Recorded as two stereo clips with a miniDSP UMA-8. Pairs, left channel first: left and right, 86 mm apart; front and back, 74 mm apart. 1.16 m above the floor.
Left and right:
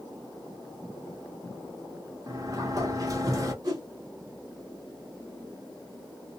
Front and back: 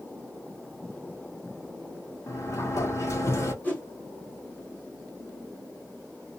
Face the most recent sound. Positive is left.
turn(degrees=-60)